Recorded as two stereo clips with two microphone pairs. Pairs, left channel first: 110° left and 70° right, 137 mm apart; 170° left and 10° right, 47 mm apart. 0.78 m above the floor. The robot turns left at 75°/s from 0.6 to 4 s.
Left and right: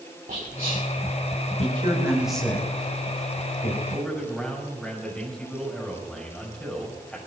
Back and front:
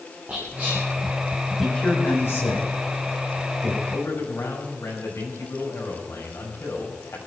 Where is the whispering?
65° right, 3 m; by 0.8 s 80° right, 3 m.